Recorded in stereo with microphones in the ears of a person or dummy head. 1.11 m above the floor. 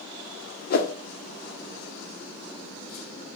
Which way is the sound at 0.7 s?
50° left (ahead or behind).